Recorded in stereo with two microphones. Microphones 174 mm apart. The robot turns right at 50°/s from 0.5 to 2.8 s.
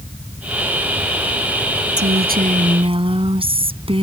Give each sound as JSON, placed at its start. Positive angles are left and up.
{"t": 2.0, "sound": "a woman speaking", "azimuth_deg": -75}